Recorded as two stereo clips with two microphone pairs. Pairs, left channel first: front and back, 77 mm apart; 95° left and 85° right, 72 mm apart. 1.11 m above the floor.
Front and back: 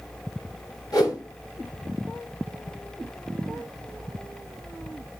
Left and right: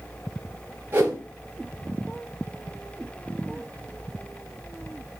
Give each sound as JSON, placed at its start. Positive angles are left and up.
{"t": 0.9, "sound": "a whoosh", "azimuth_deg": -30, "distance_m": 2.5}